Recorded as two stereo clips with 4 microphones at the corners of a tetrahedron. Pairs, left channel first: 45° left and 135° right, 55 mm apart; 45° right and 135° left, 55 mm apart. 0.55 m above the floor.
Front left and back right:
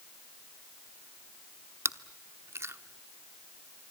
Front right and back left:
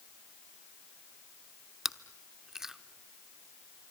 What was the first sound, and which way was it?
Chewing, 145° right.